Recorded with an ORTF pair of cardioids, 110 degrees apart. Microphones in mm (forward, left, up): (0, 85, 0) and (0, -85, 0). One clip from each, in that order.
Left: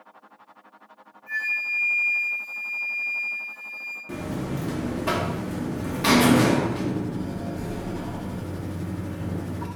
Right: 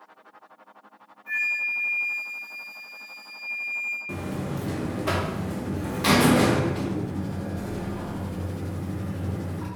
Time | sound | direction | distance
1.3 | a flute | 40° right | 1.5 m
4.1 | a buzzer | straight ahead | 0.6 m